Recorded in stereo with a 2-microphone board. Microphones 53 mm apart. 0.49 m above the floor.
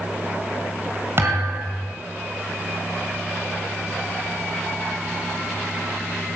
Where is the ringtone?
I don't hear a ringtone.